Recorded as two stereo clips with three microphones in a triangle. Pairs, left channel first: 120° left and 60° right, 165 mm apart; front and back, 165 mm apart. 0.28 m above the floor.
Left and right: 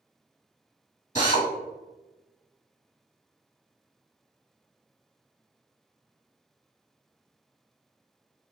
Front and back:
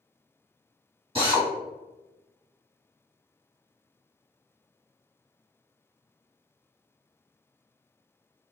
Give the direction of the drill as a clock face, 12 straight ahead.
7 o'clock.